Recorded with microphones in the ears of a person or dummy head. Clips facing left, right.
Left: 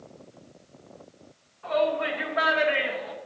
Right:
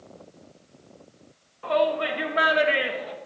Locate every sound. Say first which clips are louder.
1.6 s a shout: right 2 dB; 70° right (ahead or behind), 1.7 m; by 3.2 s 40° right (ahead or behind), 1.4 m